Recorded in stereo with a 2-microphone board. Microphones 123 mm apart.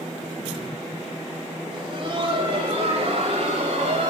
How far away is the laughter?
About 3 m.